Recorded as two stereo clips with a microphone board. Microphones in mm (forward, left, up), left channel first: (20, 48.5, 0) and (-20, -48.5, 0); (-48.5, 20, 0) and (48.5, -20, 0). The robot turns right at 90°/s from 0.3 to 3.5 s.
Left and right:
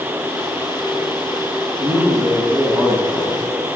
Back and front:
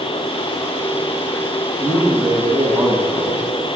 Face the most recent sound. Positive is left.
turn(degrees=-15)